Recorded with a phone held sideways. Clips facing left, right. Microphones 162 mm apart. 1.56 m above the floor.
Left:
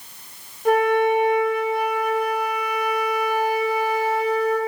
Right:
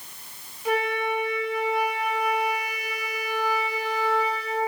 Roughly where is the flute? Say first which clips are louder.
Left 8 dB; left.